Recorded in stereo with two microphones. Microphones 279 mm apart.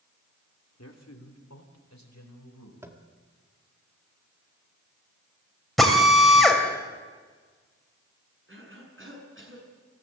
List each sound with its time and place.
0.8 s a man speaking: 65° left (ahead or behind), 2.5 m; by 2.7 s 80° left, 4.5 m
2.8 s tapping: 10° right (ahead or behind), 1.8 m
5.8 s a drill: centre (ahead or behind), 3.5 m
8.5 s a cough: 45° right (ahead or behind), 7 m